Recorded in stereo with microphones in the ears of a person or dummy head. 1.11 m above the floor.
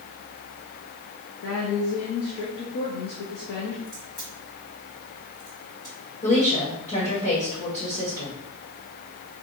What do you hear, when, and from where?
1.4 s a woman speaking: 70° left (ahead or behind), 0.8 m
3.9 s a crack: 20° left (ahead or behind), 1.5 m
6.2 s a woman speaking: 35° left (ahead or behind), 1.2 m